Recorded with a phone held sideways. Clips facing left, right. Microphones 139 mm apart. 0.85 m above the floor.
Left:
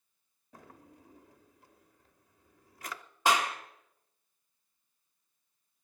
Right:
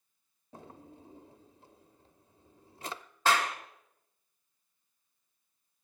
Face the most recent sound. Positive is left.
turn(degrees=15)  # may be behind; listen again after turning